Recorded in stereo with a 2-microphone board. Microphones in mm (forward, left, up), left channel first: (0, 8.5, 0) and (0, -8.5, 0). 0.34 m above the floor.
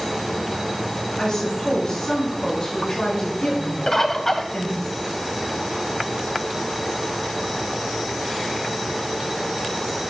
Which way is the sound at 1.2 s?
50° left (ahead or behind).